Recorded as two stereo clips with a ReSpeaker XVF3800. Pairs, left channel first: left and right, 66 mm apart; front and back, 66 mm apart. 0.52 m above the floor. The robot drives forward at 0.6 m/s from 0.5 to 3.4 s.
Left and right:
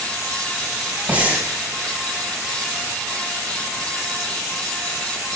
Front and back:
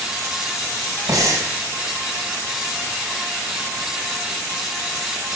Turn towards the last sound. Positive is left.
turn(degrees=-170)